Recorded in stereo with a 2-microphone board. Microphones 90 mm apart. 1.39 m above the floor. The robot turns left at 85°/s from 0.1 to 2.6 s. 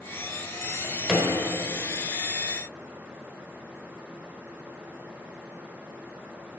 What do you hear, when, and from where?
0.6 s a drawer: 20° right (ahead or behind), 1.1 m; by 1.3 s 5° right (ahead or behind), 1.1 m